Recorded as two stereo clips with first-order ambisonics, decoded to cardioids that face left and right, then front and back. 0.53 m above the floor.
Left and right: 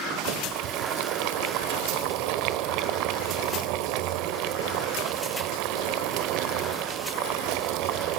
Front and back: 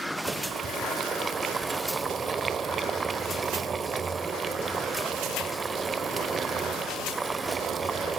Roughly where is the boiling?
Right.